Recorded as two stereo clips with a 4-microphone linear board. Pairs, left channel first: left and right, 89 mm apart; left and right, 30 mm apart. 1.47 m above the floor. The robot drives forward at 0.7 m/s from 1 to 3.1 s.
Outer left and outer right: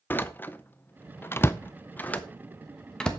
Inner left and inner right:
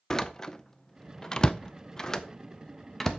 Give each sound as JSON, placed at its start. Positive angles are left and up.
{"t": 0.1, "sound": "a door slam", "side_deg": 20, "distance_m": 0.5}